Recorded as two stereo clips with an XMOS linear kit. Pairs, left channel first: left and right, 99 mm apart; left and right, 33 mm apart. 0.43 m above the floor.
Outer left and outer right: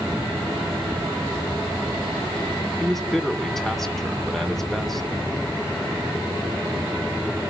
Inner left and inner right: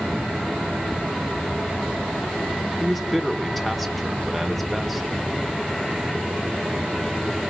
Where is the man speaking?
5° left (ahead or behind), 1.4 m.